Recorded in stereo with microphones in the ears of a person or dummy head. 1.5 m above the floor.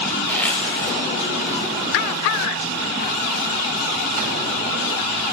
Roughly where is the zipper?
Centre.